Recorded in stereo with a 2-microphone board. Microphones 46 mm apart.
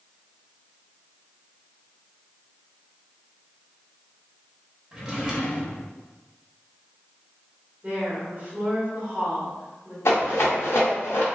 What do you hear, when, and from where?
4.9 s a drawer: 20° right (ahead or behind), 0.7 m
7.8 s a woman speaking: 30° right (ahead or behind), 1.1 m
10.1 s a rattle: 80° left, 1.3 m